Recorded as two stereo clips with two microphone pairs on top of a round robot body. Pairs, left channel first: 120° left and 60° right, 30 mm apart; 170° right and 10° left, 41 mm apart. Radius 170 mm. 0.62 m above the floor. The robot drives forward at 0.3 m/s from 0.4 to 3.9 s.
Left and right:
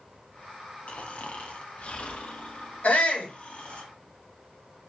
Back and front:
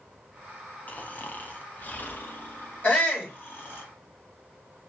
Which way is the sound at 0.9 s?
145° left.